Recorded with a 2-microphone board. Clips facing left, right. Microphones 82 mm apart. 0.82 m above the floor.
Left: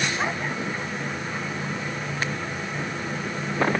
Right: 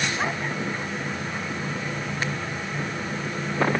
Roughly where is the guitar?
No guitar in this recording.